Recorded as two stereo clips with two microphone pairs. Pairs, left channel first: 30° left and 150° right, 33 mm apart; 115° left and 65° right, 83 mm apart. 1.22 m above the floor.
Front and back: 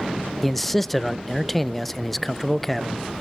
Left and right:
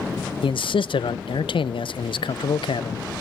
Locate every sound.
0.4 s a man speaking: 115° left, 0.5 m